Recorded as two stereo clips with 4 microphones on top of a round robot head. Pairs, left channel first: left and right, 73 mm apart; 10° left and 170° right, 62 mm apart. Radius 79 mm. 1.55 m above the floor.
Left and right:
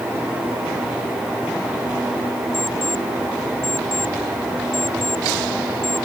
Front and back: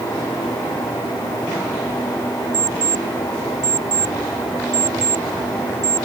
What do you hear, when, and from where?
2.5 s an alarm clock: 175° left